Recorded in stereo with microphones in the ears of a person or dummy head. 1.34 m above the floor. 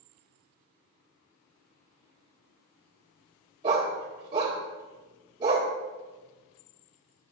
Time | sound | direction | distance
3.6 | a dog barking | 25° right (ahead or behind) | 1.5 m